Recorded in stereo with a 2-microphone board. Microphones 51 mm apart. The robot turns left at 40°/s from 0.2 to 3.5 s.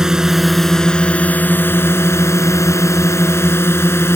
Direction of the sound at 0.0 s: 170° right.